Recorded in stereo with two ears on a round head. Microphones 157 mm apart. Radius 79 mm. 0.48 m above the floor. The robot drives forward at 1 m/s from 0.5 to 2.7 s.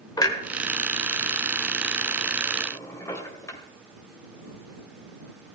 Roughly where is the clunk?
Left.